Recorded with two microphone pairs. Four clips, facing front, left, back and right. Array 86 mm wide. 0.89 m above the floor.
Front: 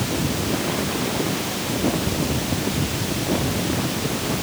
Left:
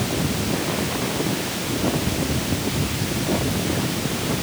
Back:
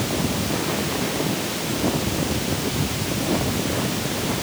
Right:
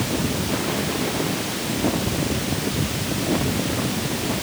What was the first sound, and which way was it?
Only background noise.